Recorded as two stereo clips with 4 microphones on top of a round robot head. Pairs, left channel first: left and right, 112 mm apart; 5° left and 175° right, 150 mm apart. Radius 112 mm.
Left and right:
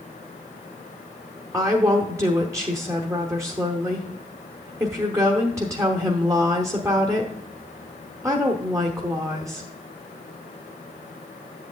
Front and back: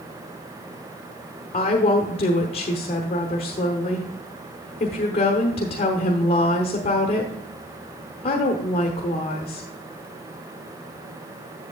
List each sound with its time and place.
1.5 s a woman speaking: 30° right, 1.2 m